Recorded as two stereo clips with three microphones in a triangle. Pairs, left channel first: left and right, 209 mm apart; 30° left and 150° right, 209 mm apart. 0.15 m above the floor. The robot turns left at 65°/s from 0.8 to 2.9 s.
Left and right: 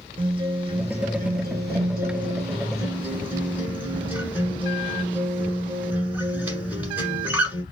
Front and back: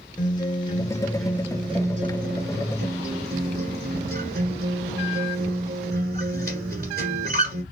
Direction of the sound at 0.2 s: 35° right.